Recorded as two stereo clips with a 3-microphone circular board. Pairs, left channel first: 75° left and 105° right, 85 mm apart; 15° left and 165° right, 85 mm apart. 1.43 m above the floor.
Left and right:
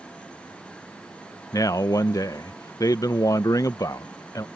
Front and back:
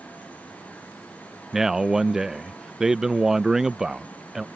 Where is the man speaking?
110° left.